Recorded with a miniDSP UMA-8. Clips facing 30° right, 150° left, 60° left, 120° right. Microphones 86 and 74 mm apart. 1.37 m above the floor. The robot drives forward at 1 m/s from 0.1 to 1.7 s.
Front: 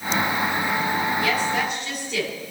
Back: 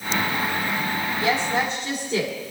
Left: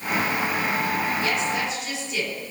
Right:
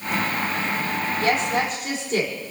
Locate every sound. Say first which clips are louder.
1.2 s a woman speaking: even, right 3 dB; 150° right, 4 m; by 2.4 s 155° right, 4.5 m